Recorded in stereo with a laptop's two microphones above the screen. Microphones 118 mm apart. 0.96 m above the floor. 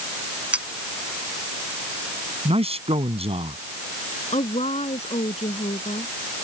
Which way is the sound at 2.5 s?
55° right (ahead or behind).